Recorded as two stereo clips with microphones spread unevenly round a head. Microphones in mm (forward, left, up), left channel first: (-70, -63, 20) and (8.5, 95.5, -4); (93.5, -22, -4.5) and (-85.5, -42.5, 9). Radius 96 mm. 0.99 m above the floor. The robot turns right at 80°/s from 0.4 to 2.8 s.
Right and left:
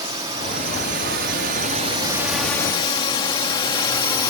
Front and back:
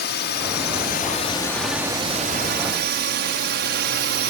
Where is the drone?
Straight ahead; by 4.3 s straight behind.